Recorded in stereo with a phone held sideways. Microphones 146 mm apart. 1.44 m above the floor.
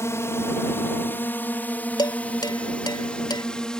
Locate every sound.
0.0 s a drone: 20° left (ahead or behind); by 3.8 s 5° left (ahead or behind)
2.0 s dishes clattering: 30° left (ahead or behind)